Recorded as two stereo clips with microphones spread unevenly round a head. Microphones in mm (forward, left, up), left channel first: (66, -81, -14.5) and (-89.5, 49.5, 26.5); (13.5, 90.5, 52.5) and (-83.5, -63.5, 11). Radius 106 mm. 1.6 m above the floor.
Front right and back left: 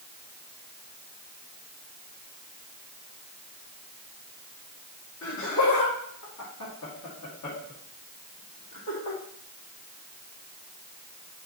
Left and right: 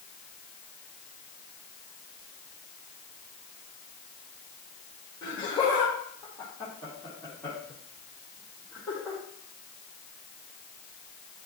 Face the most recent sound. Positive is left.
turn(degrees=-30)